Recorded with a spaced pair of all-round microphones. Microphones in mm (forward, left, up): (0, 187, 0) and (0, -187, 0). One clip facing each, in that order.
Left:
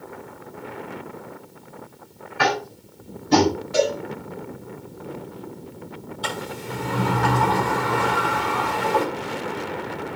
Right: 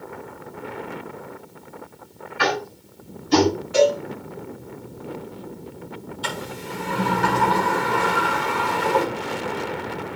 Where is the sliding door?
65° left (ahead or behind), 7 m.